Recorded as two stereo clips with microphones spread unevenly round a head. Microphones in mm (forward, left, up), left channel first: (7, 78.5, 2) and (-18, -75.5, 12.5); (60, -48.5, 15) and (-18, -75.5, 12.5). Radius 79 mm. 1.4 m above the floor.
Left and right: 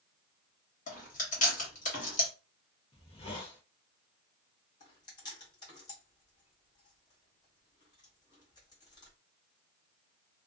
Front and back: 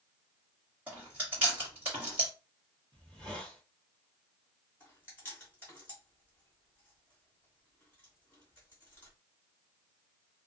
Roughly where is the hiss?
Behind left.